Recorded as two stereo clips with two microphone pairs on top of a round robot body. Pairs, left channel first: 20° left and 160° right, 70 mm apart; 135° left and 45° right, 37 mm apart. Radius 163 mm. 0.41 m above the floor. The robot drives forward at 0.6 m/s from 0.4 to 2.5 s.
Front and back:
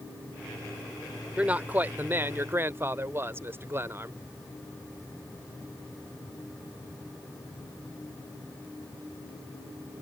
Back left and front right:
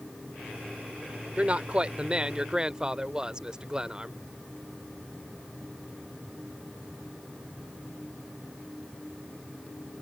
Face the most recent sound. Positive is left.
turn(degrees=-110)